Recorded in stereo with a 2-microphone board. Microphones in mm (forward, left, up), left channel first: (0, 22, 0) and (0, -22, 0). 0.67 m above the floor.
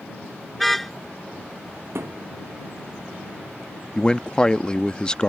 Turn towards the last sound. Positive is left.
turn(degrees=20)  # may be behind; listen again after turning